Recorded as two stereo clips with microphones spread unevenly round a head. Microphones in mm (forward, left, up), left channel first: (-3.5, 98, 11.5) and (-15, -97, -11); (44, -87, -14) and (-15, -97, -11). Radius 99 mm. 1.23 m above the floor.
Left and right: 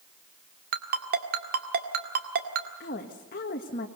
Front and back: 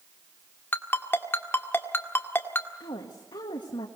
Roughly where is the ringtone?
Ahead right.